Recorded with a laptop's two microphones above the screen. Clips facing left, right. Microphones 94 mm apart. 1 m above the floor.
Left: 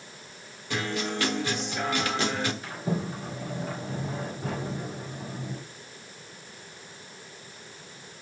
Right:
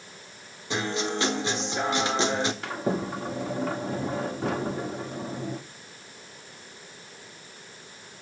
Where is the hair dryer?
I don't hear a hair dryer.